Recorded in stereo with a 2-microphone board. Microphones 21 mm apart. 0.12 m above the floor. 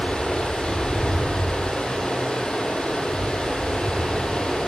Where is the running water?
55° left (ahead or behind), 2 m.